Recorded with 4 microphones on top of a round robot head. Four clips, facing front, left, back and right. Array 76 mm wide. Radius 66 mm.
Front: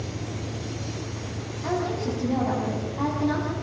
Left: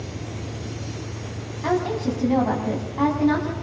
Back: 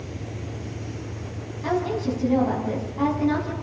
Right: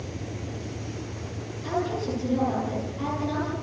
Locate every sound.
1.6 s a woman speaking: 95° left, 5 m